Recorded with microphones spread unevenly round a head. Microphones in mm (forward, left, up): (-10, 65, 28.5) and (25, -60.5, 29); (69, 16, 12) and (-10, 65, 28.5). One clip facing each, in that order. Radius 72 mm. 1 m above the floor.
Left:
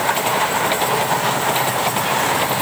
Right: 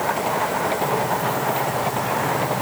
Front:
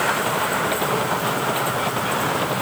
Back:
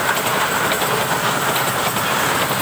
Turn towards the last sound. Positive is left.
No sound to turn to.